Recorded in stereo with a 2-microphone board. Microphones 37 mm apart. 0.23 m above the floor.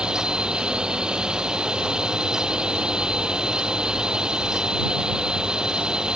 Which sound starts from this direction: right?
A drone, at 0.0 s.